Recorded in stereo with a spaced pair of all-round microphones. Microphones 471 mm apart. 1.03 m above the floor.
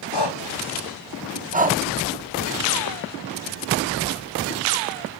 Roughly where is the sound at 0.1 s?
Left.